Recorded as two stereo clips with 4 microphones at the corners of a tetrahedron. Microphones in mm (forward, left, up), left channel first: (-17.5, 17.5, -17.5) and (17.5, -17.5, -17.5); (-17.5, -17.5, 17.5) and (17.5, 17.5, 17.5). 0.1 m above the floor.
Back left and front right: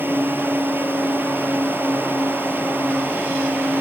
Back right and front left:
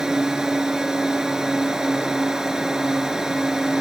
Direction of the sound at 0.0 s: 30° right.